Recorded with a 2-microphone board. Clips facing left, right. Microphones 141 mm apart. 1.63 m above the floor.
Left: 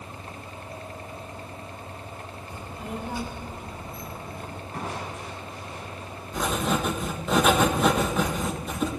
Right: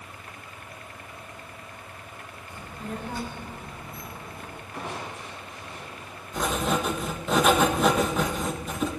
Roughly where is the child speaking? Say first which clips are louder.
Even; centre.